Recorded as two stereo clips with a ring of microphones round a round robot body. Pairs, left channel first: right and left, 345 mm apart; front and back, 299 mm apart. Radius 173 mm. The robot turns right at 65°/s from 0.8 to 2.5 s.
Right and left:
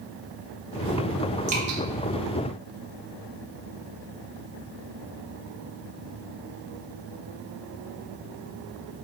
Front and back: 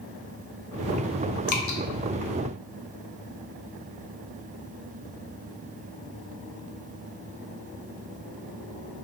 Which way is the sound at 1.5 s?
20° left.